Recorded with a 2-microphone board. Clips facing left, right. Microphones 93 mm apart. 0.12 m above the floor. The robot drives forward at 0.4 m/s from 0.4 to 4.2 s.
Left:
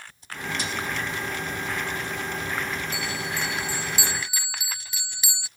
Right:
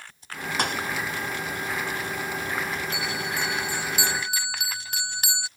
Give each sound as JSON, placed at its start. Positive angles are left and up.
{"t": 0.6, "sound": "a thud", "side_deg": -60}
{"t": 2.9, "sound": "a bell", "side_deg": -60}